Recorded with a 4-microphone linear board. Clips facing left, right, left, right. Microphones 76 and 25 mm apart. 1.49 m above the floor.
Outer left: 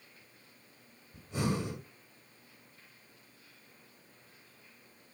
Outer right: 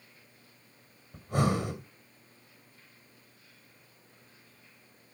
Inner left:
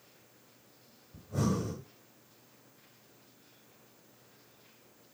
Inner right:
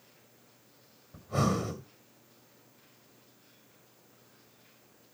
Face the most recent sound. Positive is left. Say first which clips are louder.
# outer right 5 dB, inner right 3 dB
turn(degrees=-55)  # may be behind; listen again after turning